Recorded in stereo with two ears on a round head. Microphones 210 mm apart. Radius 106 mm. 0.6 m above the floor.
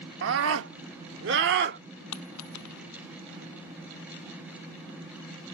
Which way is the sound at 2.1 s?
90° left.